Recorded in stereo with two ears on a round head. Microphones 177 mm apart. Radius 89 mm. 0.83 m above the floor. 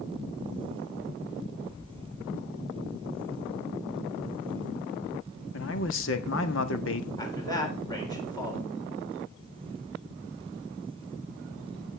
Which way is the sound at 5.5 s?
65° left (ahead or behind).